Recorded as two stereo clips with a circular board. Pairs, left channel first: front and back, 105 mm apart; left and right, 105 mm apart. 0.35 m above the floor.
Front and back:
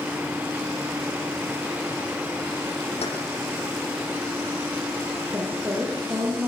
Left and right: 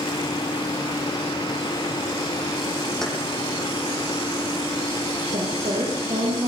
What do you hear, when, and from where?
3.0 s keys jangling: 5° left, 10 m
5.3 s a woman speaking: 110° right, 8.5 m